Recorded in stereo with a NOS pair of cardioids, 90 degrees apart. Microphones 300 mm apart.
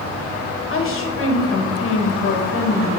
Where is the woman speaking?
45° left, 1.5 m.